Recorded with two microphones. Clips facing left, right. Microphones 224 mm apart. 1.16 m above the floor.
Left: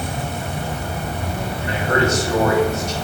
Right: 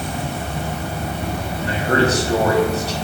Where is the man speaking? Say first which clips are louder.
Right 2 dB; 35° right (ahead or behind), 0.7 m.